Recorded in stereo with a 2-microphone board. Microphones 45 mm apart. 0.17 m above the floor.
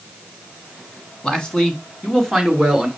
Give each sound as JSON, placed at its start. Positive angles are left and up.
{"t": 1.2, "sound": "a man speaking", "side_deg": 15, "distance_m": 1.5}